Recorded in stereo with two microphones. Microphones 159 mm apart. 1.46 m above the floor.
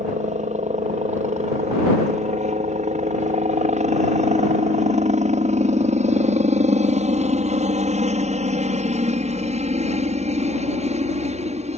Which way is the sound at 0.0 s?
50° right (ahead or behind).